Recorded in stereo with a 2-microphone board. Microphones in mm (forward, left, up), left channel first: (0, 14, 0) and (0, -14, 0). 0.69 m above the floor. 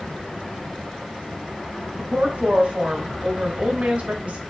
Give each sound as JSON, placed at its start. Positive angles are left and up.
{"t": 2.0, "sound": "a woman speaking", "side_deg": -55, "distance_m": 1.0}